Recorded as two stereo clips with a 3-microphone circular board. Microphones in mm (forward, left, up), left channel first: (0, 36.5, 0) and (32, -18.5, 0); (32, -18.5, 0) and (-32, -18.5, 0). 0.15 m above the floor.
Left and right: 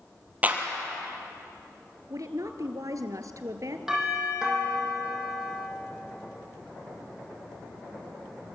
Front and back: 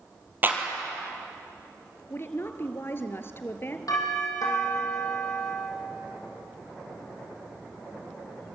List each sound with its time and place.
0.4 s a clap: 125° right, 3.5 m
2.1 s a woman speaking: 45° right, 2.5 m
3.9 s a doorbell: 20° left, 6.5 m